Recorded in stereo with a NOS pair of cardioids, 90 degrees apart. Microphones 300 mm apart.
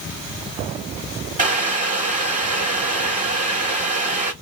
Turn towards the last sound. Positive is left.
turn(degrees=-25)